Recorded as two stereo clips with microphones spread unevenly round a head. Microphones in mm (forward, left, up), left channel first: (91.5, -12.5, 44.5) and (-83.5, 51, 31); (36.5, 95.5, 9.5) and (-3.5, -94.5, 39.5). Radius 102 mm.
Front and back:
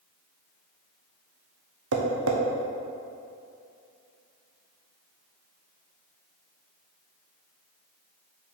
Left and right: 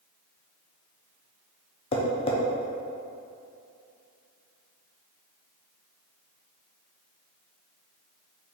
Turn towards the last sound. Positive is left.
turn(degrees=145)